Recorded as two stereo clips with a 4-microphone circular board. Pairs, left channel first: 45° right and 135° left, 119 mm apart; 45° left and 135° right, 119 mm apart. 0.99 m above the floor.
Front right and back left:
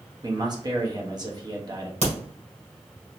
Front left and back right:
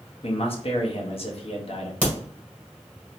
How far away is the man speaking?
About 1.0 m.